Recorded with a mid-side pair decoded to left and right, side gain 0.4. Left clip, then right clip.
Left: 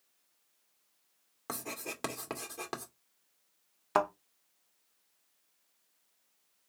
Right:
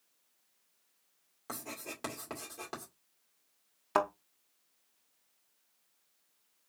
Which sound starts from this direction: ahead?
A thud, at 4.0 s.